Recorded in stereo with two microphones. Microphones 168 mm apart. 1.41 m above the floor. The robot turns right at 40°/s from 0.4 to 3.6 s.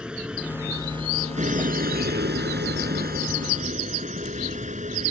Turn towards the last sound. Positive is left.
turn(degrees=-45)